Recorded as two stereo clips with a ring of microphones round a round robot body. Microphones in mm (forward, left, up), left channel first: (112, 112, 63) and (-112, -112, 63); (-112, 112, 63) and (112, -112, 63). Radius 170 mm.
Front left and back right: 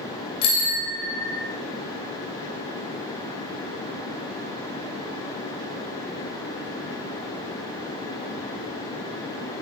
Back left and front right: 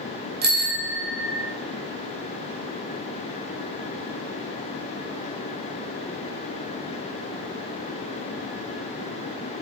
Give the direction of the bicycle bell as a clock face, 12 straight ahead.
11 o'clock.